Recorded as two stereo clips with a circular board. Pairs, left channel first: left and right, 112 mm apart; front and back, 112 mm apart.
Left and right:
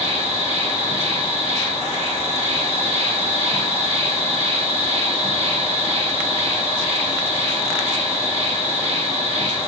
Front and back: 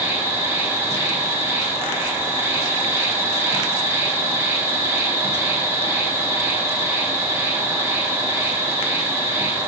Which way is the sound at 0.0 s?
110° right.